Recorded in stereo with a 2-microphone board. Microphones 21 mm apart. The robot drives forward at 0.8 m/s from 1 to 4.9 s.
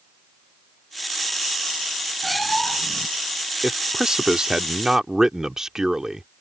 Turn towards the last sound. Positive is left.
turn(degrees=-30)  # may be behind; listen again after turning